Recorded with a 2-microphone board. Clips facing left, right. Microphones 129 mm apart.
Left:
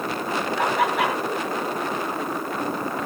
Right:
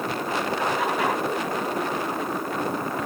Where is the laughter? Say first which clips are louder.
Left 5 dB; 75° left (ahead or behind), 6.5 m.